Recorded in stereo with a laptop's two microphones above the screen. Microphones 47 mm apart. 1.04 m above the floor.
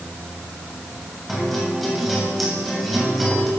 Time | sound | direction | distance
1.3 | a guitar | centre (ahead or behind) | 7.5 m